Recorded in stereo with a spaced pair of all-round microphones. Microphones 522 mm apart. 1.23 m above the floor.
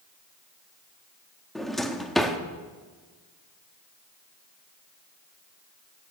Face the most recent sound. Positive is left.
turn(degrees=0)  # may be behind; listen again after turning